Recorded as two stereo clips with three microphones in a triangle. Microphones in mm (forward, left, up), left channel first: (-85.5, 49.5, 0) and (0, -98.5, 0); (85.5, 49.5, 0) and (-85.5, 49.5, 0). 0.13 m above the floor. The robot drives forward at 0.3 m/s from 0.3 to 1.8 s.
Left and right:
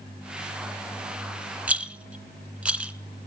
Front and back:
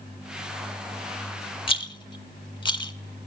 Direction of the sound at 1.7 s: 15° left.